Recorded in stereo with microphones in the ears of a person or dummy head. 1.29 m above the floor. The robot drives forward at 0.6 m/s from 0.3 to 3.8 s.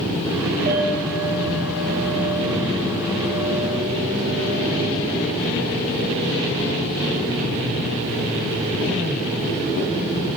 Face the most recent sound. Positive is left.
turn(degrees=-25)  # may be behind; listen again after turning